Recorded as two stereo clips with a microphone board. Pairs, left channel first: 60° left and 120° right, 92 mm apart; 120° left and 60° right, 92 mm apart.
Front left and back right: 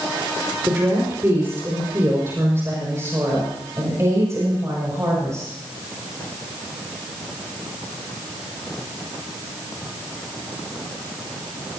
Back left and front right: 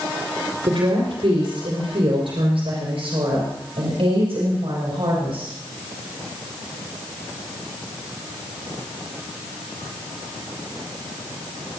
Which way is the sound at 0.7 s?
55° right.